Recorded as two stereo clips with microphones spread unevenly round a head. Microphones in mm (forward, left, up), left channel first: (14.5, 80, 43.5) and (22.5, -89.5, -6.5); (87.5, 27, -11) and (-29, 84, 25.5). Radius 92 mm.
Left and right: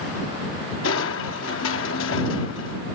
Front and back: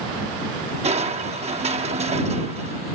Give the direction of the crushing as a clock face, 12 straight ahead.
8 o'clock.